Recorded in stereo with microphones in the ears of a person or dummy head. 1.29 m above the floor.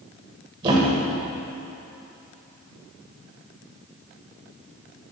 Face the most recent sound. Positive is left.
turn(degrees=-30)  # may be behind; listen again after turning